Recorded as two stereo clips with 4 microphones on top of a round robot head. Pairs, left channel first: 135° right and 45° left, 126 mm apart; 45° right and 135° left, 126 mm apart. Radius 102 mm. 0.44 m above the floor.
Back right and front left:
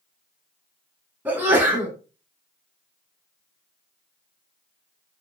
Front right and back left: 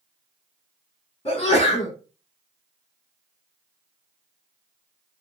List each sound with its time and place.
1.2 s a sneeze: 20° right, 1.6 m